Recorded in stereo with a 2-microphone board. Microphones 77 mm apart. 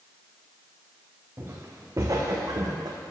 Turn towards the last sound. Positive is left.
turn(degrees=-60)  # may be behind; listen again after turning